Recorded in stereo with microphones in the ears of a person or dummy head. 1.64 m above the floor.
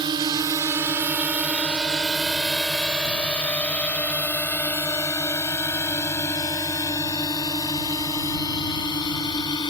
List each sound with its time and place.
0.0 s a drone: 15° right (ahead or behind); by 9.7 s 35° left (ahead or behind)